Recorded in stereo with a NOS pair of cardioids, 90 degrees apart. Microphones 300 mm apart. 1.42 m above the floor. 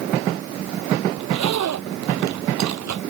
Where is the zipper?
65° right.